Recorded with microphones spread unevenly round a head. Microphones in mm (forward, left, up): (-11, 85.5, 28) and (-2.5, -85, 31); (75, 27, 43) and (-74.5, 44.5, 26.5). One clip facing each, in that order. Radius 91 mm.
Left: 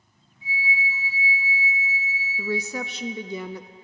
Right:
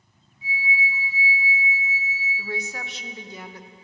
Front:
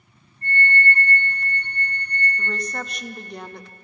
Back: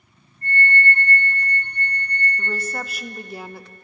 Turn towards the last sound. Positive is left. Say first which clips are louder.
# left 7 dB, back 1 dB
turn(degrees=90)